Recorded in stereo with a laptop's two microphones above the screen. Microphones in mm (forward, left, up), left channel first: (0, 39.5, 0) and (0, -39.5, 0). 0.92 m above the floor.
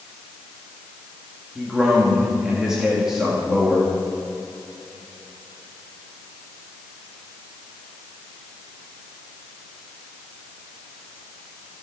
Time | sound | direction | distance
1.6 | a man speaking | 10° right (ahead or behind) | 2 m